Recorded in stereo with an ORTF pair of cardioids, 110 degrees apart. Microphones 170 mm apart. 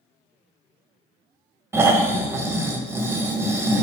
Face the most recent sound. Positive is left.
turn(degrees=-15)